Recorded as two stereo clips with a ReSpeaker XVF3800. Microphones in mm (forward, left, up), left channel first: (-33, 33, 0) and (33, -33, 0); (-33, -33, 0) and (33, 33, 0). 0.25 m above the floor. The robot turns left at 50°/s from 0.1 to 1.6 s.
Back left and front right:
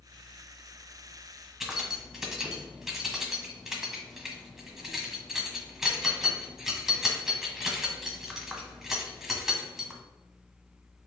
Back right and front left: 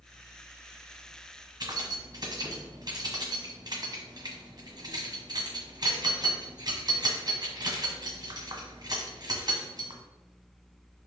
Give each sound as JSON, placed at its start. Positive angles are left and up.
{"t": 1.6, "sound": "keys jangling", "azimuth_deg": 40, "distance_m": 1.3}